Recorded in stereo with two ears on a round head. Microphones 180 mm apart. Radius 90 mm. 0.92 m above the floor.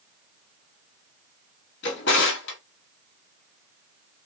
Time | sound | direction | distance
1.8 | a drawer | 60° left (ahead or behind) | 1.5 m